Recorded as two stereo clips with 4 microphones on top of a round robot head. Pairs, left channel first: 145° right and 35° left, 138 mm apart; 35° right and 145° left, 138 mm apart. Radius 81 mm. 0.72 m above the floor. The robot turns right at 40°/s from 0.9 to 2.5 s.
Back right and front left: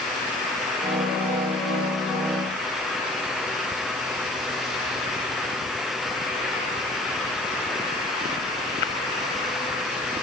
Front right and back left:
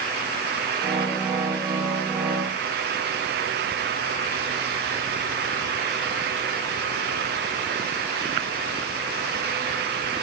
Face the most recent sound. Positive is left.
No sound to turn to.